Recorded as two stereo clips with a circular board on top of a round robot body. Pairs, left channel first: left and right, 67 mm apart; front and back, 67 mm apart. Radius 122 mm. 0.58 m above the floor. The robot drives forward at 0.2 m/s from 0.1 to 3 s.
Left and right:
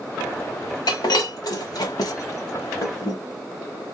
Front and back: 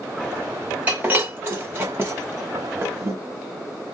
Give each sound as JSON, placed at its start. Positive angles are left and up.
{"t": 0.9, "sound": "breaking glass", "azimuth_deg": 110, "distance_m": 1.3}